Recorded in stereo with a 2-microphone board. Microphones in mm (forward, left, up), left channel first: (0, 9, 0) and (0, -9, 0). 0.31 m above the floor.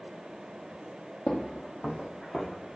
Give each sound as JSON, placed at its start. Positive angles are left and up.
{"t": 1.3, "sound": "footsteps", "side_deg": 65, "distance_m": 0.6}